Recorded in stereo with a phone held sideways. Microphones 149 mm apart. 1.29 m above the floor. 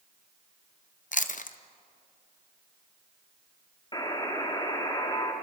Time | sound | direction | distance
1.1 | chewing | 55° left (ahead or behind) | 0.7 m
3.9 | a buzzer | 30° left (ahead or behind) | 2.5 m